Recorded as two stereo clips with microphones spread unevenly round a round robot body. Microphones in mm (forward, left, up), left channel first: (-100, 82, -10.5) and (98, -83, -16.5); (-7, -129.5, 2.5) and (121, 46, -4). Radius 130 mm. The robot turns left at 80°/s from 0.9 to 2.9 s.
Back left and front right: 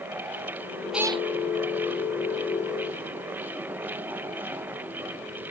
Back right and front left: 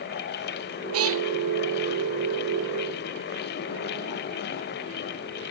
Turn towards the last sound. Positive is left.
turn(degrees=-110)